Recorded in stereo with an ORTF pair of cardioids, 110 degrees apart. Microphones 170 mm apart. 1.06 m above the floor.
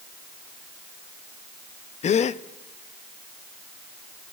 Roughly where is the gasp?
Ahead left.